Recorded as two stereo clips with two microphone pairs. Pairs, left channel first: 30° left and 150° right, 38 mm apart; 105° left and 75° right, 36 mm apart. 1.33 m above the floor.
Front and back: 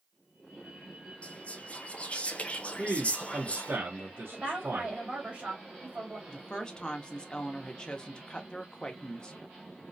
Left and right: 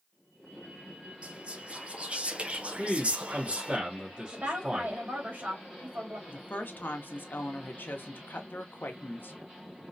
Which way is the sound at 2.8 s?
130° right.